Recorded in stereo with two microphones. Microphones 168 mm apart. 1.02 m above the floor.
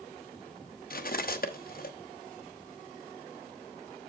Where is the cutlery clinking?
60° left (ahead or behind), 0.8 m.